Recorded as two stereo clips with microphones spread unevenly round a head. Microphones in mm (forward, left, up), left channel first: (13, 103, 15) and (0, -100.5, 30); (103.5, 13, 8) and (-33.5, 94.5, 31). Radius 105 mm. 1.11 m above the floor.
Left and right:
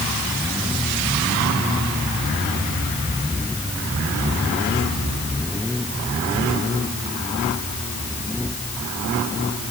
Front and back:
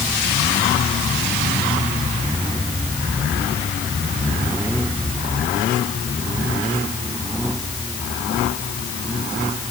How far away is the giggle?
I don't hear a giggle.